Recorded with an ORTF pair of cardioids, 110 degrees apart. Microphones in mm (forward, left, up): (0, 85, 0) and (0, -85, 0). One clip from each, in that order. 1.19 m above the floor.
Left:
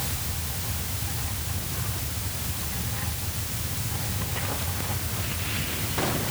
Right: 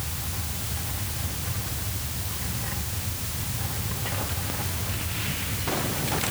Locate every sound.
Only background noise.